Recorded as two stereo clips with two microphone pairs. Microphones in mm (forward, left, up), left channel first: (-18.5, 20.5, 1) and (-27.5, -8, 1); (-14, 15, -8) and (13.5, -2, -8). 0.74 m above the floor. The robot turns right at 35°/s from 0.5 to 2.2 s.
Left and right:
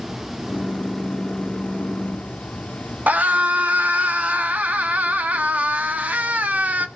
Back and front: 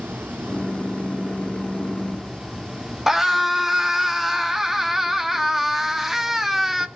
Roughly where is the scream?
Right.